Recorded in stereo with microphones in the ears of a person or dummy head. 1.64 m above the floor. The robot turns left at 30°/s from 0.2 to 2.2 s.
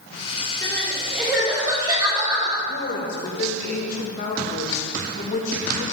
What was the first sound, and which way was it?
Crying, 20° left.